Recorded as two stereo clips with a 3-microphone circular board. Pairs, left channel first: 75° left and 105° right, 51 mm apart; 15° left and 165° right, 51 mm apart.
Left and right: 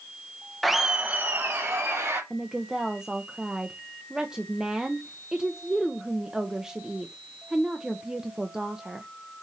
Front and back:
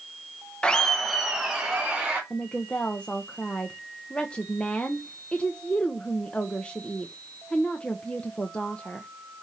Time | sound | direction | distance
0.6 | laughter | 5° right | 0.9 m
2.3 | a woman speaking | 40° right | 0.8 m